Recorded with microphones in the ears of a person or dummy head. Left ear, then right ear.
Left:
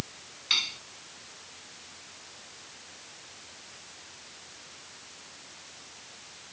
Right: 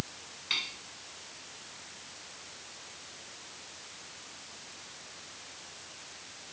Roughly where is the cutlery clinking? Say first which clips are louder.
Left 6 dB; centre.